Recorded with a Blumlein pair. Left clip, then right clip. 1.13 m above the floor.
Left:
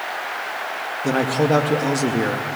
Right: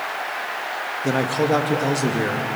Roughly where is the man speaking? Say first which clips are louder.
Left 1 dB; ahead.